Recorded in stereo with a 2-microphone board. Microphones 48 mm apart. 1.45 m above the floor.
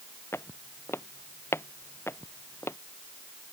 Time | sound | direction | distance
0.3 | footsteps | 60° left (ahead or behind) | ?